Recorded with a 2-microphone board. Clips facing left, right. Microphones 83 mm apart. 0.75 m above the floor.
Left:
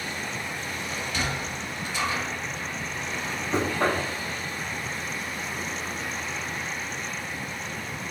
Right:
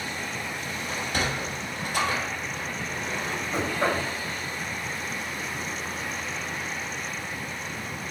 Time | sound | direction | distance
0.9 | a sliding door | 50° right (ahead or behind) | 0.8 m
3.5 | knocking | 80° left | 1.1 m